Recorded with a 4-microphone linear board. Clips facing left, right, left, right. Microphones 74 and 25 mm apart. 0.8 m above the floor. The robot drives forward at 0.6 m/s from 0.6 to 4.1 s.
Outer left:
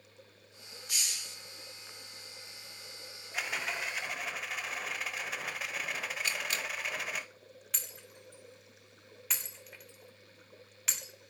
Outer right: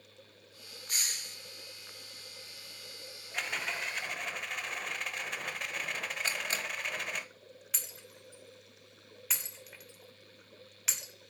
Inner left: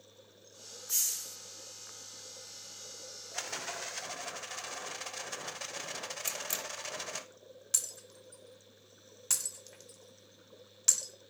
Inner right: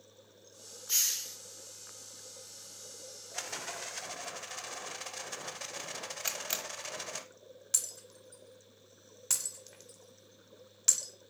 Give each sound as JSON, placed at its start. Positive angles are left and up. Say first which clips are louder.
{"t": 0.9, "sound": "a hiss", "louder": "outer right 1 dB, inner right 3 dB", "side_deg": -40, "distance_m": 0.8}
{"t": 3.3, "sound": "a rattle", "louder": "even, inner left 1 dB", "side_deg": 5, "distance_m": 0.6}
{"t": 6.2, "sound": "a camera shutter", "louder": "outer right 1 dB, inner right 3 dB", "side_deg": -35, "distance_m": 1.7}
{"t": 7.7, "sound": "breaking glass", "louder": "outer left 1 dB, even", "side_deg": 0, "distance_m": 1.8}